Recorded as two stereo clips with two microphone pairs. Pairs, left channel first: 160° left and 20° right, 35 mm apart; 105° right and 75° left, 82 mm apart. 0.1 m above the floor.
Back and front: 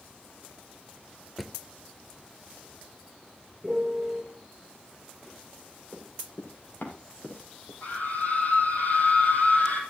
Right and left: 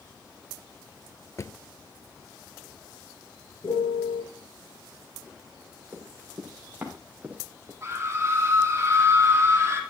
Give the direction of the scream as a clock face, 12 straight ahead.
8 o'clock.